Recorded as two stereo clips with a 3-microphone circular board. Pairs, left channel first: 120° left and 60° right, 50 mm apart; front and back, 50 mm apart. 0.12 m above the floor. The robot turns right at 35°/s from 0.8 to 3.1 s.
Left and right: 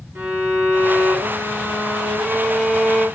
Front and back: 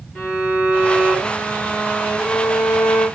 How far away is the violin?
About 2.5 m.